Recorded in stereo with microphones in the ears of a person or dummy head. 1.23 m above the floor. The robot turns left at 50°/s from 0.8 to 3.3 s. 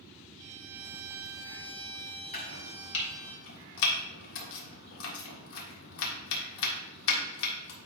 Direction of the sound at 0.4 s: 90° right.